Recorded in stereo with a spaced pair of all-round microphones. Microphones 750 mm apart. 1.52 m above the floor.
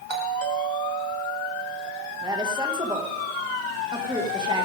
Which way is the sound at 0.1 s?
35° right (ahead or behind).